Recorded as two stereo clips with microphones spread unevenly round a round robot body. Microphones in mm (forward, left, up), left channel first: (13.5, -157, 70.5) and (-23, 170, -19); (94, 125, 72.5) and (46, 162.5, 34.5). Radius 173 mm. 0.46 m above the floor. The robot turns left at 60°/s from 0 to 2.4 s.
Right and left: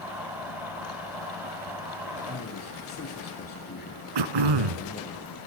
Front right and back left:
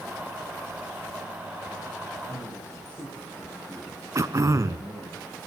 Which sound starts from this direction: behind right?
A man speaking, at 2.3 s.